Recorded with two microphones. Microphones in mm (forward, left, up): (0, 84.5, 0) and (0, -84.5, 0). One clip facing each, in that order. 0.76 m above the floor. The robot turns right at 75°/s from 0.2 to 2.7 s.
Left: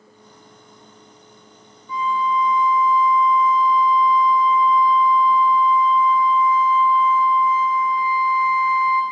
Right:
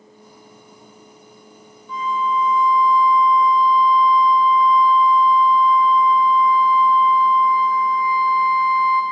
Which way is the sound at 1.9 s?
5° left (ahead or behind).